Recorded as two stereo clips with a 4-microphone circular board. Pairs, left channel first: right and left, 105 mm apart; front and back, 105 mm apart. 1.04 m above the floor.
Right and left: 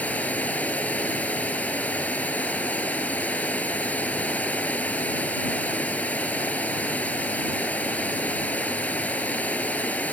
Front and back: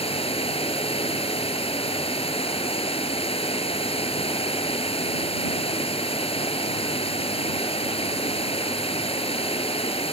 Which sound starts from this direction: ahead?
Running water, at 0.0 s.